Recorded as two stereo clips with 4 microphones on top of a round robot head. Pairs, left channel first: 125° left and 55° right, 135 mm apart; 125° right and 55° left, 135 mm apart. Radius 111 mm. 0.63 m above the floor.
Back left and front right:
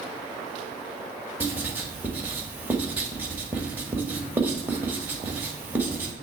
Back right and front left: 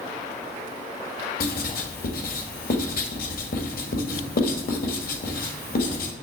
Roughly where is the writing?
Behind right.